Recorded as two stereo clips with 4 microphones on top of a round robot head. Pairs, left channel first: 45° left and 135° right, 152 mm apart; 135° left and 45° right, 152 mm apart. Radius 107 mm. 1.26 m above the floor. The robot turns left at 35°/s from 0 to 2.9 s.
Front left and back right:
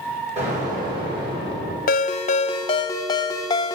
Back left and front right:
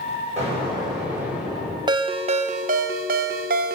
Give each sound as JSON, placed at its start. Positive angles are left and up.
{"t": 0.4, "sound": "an explosion", "azimuth_deg": -90, "distance_m": 6.5}
{"t": 1.9, "sound": "a ringtone", "azimuth_deg": 15, "distance_m": 0.6}